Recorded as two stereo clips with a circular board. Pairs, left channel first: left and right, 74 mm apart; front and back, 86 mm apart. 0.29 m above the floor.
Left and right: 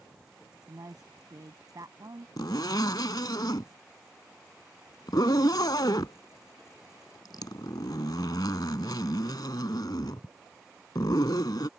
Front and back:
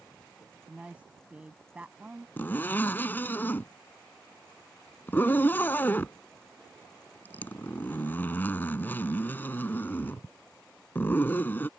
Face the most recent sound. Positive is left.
turn(degrees=65)